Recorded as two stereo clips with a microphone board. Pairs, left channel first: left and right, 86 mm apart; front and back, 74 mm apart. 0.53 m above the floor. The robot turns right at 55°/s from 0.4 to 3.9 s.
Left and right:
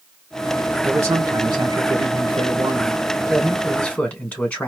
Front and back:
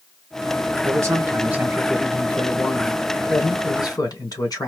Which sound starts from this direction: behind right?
A man speaking, at 0.8 s.